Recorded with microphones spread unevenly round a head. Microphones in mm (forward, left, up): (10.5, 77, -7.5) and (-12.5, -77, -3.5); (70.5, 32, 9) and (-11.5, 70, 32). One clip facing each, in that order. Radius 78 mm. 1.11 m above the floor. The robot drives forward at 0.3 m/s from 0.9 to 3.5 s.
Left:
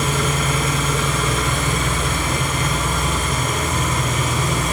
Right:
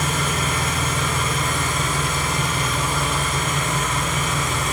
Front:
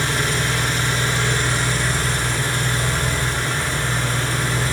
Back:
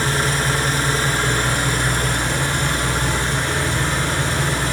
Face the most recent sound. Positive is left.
turn(degrees=135)